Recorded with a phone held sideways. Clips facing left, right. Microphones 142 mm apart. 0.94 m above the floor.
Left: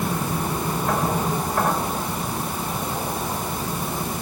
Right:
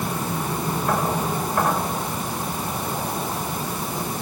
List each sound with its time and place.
Only background noise.